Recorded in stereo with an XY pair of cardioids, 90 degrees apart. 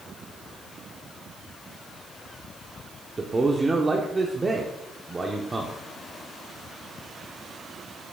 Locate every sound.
3.2 s a man speaking: 25° right, 1.1 m